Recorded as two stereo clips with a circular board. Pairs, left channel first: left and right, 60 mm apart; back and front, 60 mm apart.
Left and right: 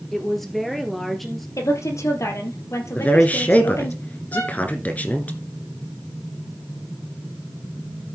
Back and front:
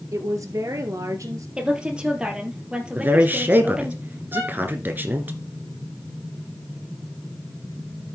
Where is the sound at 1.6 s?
70° left, 2.5 m.